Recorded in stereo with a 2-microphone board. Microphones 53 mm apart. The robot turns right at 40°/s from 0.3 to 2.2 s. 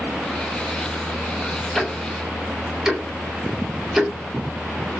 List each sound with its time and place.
1.8 s ticking: 5° left (ahead or behind), 0.6 m; by 4.1 s 10° right (ahead or behind), 0.6 m